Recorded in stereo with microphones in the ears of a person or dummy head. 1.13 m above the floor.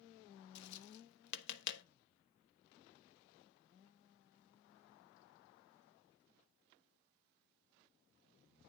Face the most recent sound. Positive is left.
turn(degrees=60)  # may be behind; listen again after turning